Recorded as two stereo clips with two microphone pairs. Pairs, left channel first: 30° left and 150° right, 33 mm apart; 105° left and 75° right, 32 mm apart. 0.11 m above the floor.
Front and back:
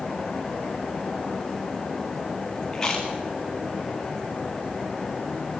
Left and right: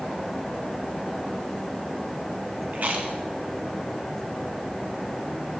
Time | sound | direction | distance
2.7 | chewing | 40° right | 7 m